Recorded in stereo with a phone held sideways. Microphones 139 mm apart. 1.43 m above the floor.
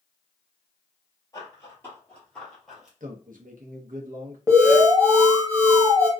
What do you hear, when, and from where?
1.3 s running footsteps: 25° left (ahead or behind), 1.6 m; by 2.9 s 5° right (ahead or behind), 1.6 m
3.0 s a man speaking: 75° right (ahead or behind), 0.7 m
4.5 s an alarm: 25° right (ahead or behind), 0.8 m